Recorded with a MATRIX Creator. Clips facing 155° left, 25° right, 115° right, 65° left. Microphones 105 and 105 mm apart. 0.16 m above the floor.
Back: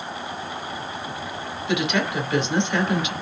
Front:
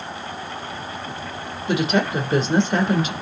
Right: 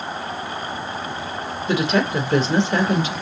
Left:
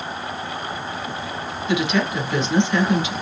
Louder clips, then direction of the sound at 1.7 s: Front 3 dB, right 1 dB; 65° right.